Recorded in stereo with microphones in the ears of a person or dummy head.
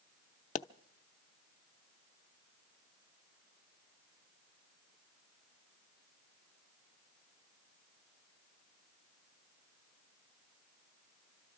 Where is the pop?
40° left (ahead or behind), 0.5 m.